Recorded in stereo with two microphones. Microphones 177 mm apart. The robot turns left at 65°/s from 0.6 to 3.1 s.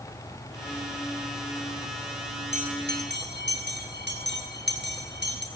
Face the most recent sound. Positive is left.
turn(degrees=-80)